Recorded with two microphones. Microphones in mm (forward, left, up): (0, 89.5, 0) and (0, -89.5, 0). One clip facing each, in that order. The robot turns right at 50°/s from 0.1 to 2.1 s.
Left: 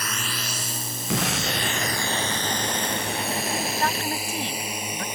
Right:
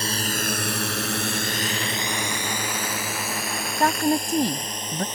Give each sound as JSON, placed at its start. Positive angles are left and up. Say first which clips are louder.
{"t": 0.0, "sound": "a drone", "louder": "right 6 dB", "side_deg": -30}
{"t": 1.1, "sound": "an explosion", "louder": "left 1 dB", "azimuth_deg": 100}
{"t": 3.8, "sound": "a woman speaking", "louder": "right 6 dB", "side_deg": -40}